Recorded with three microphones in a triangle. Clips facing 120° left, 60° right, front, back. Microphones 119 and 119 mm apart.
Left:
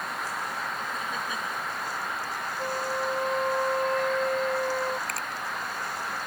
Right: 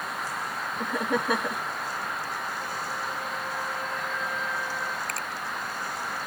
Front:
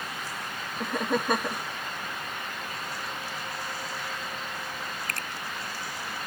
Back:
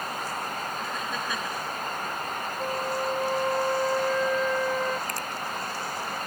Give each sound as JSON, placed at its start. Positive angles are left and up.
{"t": 0.8, "sound": "laughter", "azimuth_deg": -35}
{"t": 2.6, "sound": "a flute", "azimuth_deg": 160}
{"t": 5.1, "sound": "a finger snap", "azimuth_deg": 30}